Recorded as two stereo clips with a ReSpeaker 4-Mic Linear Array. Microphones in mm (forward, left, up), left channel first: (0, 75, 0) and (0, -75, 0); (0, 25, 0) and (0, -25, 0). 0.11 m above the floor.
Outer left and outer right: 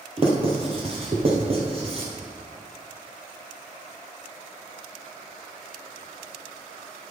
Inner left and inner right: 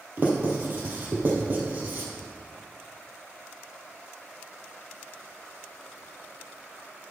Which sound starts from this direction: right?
Writing, at 0.2 s.